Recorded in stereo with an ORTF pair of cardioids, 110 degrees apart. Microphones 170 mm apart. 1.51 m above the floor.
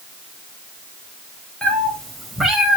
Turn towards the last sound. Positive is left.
turn(degrees=-5)